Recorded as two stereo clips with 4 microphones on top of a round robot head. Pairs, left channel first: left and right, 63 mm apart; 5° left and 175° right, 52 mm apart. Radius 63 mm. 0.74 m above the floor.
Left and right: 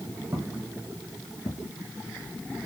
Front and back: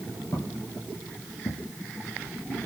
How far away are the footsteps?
About 1.4 m.